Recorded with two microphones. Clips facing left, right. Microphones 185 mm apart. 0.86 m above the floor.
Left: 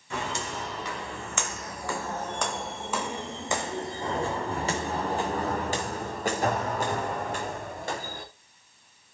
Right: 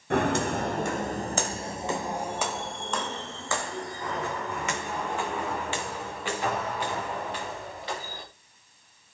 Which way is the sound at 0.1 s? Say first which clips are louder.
Right 9 dB; 65° right (ahead or behind).